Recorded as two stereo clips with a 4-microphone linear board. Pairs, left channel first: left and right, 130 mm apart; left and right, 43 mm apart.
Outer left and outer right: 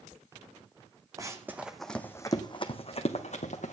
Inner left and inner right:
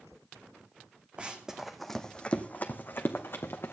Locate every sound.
1.2 s running footsteps: 25° right (ahead or behind), 1.4 m; by 3.7 s 65° left (ahead or behind), 2 m